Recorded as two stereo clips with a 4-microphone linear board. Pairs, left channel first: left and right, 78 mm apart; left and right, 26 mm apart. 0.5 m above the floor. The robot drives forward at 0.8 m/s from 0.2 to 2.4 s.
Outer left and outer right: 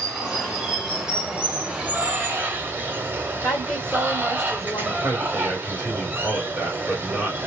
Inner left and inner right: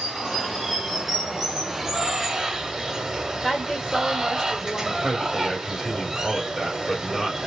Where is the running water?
10° right (ahead or behind), 2.5 m; by 7.5 s 30° right (ahead or behind), 0.9 m.